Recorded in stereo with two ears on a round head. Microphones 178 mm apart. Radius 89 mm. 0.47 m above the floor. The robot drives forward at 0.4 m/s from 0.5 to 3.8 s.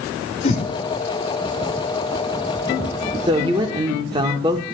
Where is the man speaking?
25° right (ahead or behind), 0.7 m.